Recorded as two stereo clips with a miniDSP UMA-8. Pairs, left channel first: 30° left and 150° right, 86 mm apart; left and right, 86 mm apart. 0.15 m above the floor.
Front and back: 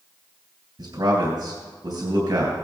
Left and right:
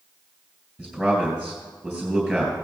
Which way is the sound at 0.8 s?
175° left.